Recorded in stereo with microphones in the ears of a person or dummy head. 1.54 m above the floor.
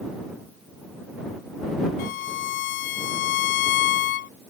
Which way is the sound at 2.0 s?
60° left (ahead or behind).